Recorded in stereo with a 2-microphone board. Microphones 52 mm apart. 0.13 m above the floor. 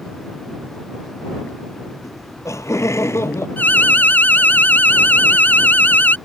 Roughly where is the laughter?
Left.